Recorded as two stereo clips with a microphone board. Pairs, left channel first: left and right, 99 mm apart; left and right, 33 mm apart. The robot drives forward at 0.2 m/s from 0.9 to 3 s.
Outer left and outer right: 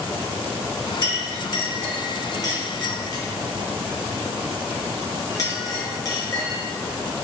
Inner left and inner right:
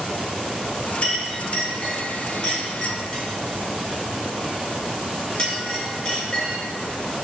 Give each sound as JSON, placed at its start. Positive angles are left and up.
{"t": 1.0, "sound": "a clink", "side_deg": 30, "distance_m": 0.9}